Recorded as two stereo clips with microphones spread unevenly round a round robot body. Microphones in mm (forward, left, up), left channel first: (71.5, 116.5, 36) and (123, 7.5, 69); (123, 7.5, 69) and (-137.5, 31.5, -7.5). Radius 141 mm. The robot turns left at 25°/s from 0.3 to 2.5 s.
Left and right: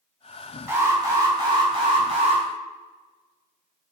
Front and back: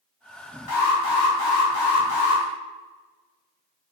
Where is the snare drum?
No snare drum in this recording.